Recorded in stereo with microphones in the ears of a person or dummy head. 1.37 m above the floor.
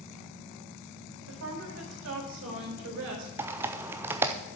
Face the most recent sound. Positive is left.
turn(degrees=-15)  # may be behind; listen again after turning